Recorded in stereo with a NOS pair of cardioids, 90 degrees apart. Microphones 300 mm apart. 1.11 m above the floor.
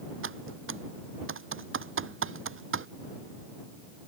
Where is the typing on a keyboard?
40° right.